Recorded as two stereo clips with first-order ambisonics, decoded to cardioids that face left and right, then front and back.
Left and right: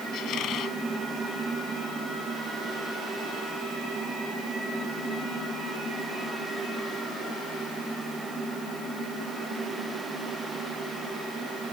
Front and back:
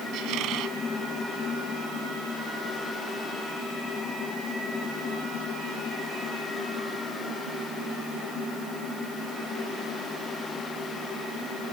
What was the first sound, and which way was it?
A squeak, 140° left.